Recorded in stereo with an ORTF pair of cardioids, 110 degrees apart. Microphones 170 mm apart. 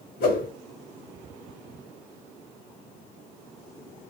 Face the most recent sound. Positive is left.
turn(degrees=65)